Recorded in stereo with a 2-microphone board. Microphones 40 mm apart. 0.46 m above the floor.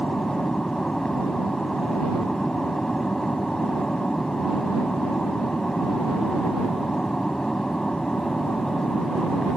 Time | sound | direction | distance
0.0 | an aircraft | 20° left (ahead or behind) | ?